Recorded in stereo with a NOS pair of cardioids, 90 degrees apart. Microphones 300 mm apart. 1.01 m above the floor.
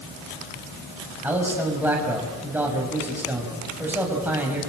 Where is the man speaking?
5° right, 6.5 m.